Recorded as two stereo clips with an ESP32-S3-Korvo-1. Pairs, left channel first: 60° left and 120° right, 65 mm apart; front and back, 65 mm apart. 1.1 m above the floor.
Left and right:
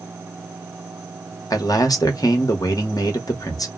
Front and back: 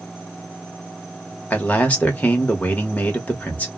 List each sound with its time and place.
1.5 s a man speaking: 65° left, 0.9 m